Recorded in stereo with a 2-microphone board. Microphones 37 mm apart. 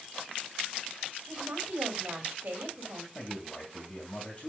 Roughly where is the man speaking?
Left.